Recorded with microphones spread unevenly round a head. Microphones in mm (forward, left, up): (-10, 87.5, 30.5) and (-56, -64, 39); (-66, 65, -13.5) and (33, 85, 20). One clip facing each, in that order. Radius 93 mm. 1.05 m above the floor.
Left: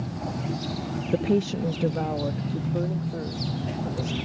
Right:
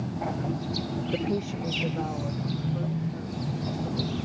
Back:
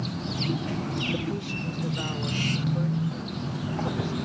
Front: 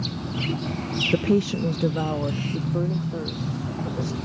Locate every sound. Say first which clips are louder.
1.1 s a woman speaking: left 7 dB, front 9 dB; 10° left; by 4.2 s 25° left